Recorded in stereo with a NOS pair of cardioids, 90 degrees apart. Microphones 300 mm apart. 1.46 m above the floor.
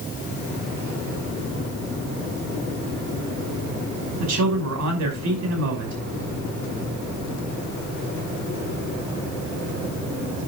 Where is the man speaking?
60° right, 6 m.